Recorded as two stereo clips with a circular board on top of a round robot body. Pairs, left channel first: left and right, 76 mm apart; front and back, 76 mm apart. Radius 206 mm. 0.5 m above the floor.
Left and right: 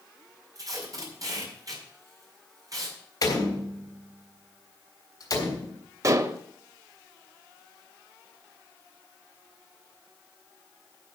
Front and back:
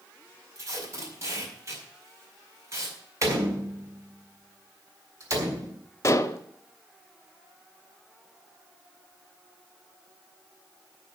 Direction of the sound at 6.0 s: 50° right.